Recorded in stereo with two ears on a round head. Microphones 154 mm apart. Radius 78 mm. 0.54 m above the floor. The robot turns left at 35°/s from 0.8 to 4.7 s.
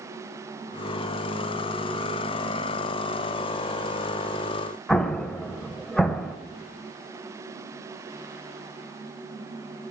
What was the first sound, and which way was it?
An explosion, 5° left (ahead or behind).